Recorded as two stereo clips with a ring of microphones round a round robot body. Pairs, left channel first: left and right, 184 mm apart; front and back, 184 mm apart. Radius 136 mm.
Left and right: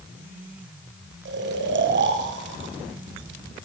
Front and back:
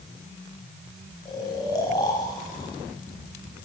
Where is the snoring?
75° right, 1.0 m.